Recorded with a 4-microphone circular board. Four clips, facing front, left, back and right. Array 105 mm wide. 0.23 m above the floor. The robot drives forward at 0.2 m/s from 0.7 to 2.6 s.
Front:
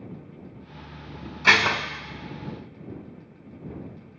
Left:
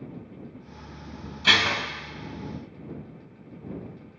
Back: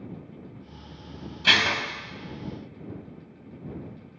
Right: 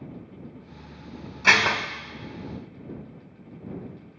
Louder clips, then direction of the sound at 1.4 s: Right 3 dB, front 4 dB; 45° right.